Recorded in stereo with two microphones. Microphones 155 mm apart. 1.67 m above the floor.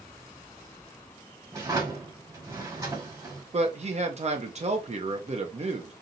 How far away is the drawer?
About 1.9 m.